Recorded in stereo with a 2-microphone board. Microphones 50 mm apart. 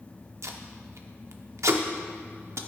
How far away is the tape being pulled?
About 0.6 m.